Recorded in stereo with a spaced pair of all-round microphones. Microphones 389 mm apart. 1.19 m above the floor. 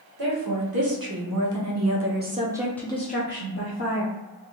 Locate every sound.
0.2 s a woman speaking: 70° right (ahead or behind), 1.4 m; by 4.1 s 50° left (ahead or behind), 1.0 m